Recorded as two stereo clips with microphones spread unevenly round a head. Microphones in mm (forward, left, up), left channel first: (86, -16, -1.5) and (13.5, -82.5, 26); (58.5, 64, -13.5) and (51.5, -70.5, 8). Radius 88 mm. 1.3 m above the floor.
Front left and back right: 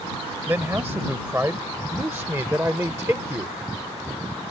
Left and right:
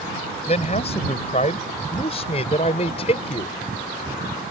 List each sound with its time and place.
0.5 s a man speaking: 145° left; by 3.6 s 150° left